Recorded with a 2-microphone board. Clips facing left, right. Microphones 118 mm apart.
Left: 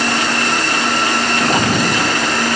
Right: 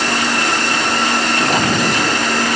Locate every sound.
Only background noise.